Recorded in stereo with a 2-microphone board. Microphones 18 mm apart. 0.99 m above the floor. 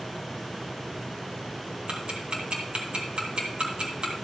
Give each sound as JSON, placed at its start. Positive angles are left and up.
{"t": 1.9, "sound": "ticking", "side_deg": -70, "distance_m": 2.0}